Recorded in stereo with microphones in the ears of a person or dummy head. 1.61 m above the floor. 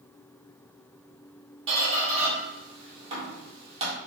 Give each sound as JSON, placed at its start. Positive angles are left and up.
{"t": 1.7, "sound": "a squeak", "side_deg": -35, "distance_m": 1.5}